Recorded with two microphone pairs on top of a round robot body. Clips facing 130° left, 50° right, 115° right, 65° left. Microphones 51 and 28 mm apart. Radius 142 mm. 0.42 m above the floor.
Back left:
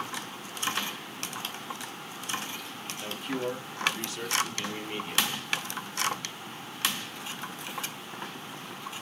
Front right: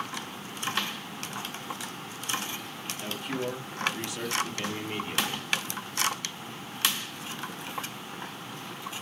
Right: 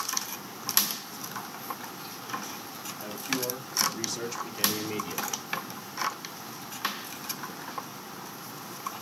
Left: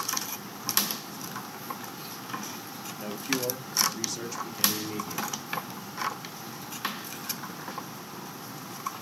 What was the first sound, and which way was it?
A man speaking, 25° left.